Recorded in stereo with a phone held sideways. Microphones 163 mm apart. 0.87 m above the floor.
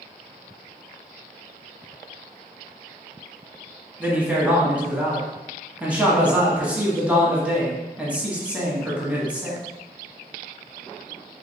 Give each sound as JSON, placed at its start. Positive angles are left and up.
{"t": 4.0, "sound": "a man speaking", "side_deg": -10, "distance_m": 1.1}